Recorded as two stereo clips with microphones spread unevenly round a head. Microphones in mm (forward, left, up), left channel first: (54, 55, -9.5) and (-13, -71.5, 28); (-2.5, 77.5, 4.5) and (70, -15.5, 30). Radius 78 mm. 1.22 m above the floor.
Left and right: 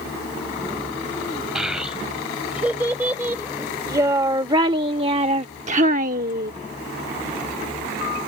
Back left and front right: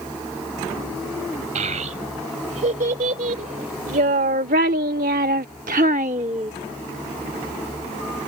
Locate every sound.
1.6 s a child speaking: 35° right; by 6.5 s 110° right